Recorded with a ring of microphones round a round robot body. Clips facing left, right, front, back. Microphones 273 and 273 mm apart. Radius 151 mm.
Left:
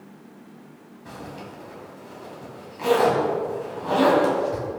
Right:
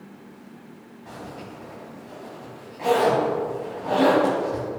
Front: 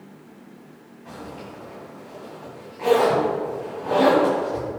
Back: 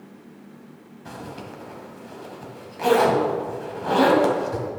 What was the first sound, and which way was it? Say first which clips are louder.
A zipper: even, even; 160° left.